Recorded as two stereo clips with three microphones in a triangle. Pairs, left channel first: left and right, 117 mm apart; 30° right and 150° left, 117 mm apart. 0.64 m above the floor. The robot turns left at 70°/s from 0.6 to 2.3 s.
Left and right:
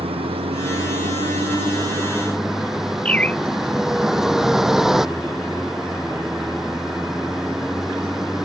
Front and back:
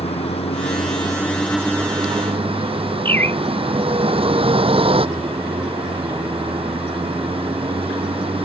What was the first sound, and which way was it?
A vehicle, 55° right.